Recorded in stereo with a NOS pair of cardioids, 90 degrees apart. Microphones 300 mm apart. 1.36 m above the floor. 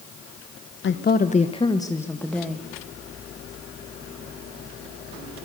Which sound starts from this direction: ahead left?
A woman speaking, at 0.8 s.